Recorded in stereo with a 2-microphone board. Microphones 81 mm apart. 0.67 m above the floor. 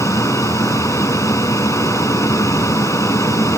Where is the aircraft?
40° left (ahead or behind).